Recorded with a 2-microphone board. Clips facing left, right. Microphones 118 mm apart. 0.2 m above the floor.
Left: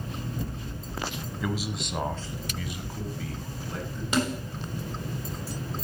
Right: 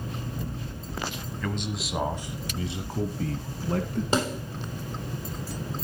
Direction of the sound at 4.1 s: 30° right (ahead or behind).